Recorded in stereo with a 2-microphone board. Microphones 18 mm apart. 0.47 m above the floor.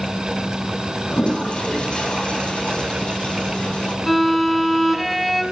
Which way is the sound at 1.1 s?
90° left.